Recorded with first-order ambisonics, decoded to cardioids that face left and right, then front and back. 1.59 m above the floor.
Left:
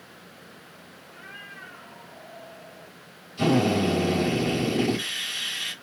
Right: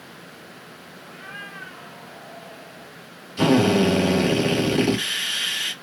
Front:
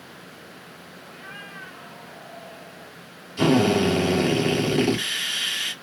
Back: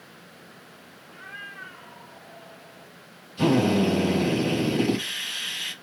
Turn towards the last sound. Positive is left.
turn(degrees=-55)